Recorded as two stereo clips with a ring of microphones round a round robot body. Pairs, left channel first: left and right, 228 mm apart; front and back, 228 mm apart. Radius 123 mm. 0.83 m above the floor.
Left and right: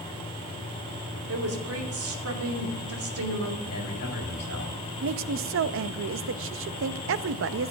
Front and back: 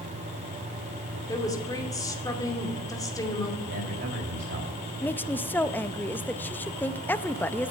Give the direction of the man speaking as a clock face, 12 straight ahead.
8 o'clock.